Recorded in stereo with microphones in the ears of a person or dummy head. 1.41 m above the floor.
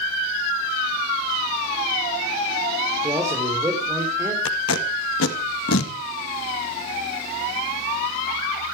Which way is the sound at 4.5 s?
75° left (ahead or behind).